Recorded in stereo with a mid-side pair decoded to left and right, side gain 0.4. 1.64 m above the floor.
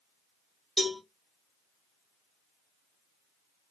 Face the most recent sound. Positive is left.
turn(degrees=30)